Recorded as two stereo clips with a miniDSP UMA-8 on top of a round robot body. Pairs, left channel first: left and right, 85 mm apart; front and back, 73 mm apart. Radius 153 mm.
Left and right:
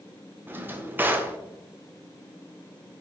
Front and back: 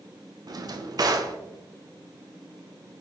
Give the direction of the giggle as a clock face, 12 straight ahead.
I don't hear a giggle.